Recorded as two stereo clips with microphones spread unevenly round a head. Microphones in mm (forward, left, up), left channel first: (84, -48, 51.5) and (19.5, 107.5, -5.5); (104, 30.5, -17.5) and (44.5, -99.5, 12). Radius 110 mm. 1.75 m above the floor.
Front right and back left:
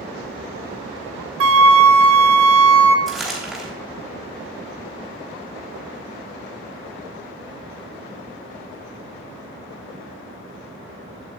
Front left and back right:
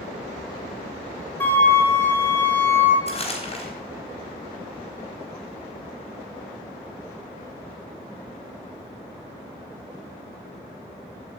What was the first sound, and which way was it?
A flute, 150° left.